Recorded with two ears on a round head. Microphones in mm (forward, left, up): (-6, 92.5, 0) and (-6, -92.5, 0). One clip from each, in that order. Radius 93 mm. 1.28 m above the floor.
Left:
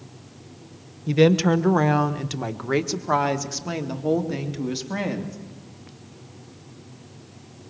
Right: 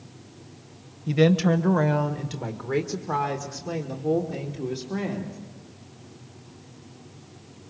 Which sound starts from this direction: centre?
A woman speaking, at 1.1 s.